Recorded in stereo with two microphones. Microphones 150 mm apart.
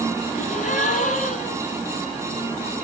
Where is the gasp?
60° left (ahead or behind), 1.8 m.